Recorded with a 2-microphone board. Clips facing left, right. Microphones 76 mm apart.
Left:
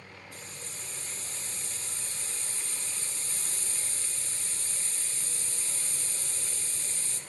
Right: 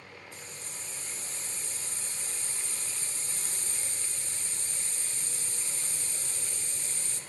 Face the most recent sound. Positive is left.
turn(degrees=-25)  # may be behind; listen again after turning